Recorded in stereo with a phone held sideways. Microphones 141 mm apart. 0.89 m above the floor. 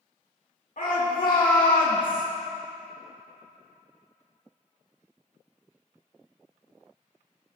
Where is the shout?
75° left (ahead or behind), 2.5 m.